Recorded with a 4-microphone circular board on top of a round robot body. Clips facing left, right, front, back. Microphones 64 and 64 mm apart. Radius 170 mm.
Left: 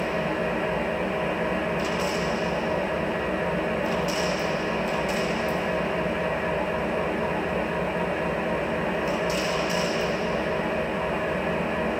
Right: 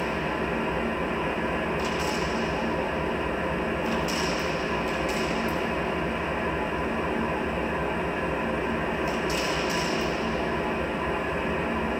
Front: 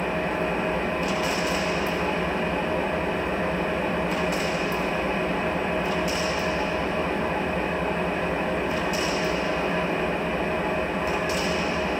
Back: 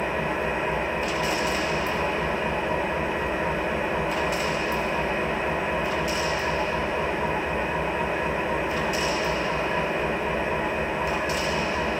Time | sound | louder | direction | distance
0.0 | an engine running | left 2 dB, even | 110° left | 2 m